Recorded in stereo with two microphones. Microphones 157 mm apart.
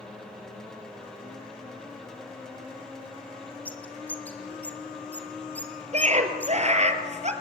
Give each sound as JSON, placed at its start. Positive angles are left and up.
{"t": 3.6, "sound": "a bird", "side_deg": 10, "distance_m": 2.5}
{"t": 5.9, "sound": "a scream", "side_deg": -45, "distance_m": 3.0}